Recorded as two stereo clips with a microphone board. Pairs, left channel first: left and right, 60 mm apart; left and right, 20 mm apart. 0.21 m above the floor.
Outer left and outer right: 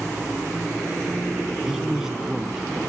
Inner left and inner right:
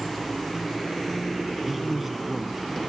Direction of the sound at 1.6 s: 5° right (ahead or behind).